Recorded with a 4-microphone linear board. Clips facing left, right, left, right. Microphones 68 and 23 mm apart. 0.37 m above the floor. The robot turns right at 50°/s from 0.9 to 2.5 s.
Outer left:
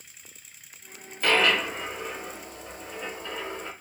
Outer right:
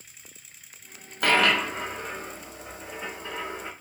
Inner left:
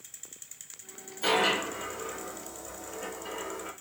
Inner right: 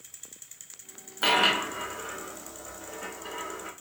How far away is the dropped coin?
About 1.7 m.